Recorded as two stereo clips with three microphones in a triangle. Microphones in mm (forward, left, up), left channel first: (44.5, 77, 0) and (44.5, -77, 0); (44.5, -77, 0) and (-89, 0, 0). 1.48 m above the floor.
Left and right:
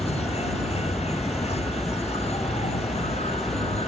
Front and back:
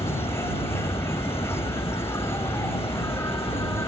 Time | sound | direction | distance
0.0 | an insect | 45° left | ?